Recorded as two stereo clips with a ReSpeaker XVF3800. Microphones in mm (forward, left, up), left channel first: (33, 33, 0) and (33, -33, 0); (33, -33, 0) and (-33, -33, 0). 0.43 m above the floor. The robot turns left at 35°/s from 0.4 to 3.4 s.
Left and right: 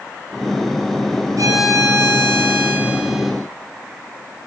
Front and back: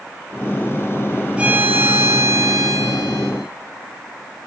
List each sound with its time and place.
1.4 s a violin: 110° right, 8 m; by 3.3 s 175° right, 8 m